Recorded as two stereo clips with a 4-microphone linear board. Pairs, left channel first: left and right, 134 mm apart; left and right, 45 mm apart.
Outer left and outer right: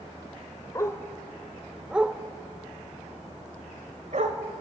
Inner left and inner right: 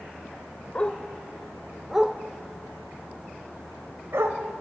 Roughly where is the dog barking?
Left.